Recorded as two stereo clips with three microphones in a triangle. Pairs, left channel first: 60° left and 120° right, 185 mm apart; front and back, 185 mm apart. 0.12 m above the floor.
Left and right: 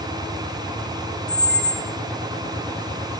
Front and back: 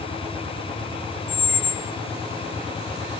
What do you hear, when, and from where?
1.3 s a squeak: 160° left, 0.8 m